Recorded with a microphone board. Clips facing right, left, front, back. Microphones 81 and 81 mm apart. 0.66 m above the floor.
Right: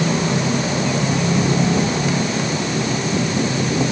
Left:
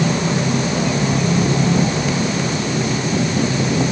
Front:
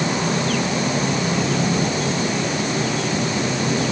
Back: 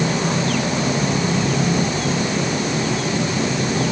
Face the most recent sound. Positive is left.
No sound to turn to.